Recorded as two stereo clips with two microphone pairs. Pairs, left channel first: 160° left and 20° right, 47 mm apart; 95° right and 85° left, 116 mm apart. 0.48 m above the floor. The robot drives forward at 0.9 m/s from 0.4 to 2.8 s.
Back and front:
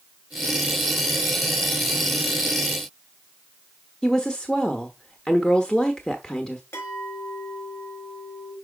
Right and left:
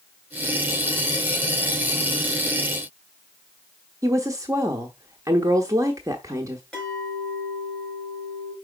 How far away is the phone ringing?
I don't hear a phone ringing.